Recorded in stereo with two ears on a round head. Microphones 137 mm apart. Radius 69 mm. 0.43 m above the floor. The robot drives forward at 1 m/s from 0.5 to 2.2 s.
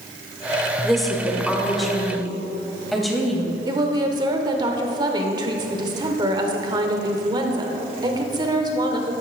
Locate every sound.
0.8 s a woman speaking: centre (ahead or behind), 1.0 m
3.7 s a woman speaking: 30° right (ahead or behind), 1.1 m